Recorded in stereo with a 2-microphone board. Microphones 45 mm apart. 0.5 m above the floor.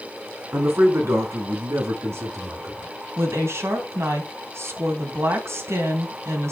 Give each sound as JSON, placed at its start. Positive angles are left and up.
{"t": 0.5, "sound": "a man speaking", "side_deg": -70, "distance_m": 4.0}
{"t": 3.2, "sound": "a woman speaking", "side_deg": -75, "distance_m": 3.0}